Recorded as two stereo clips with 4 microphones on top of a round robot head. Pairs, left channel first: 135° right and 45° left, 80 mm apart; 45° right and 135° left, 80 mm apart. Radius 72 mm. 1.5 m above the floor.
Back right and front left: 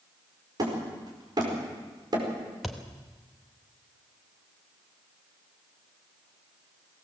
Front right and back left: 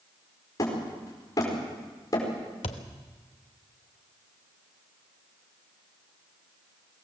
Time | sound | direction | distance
0.6 | hammering | straight ahead | 5 m
2.6 | a thud | 45° right | 1.1 m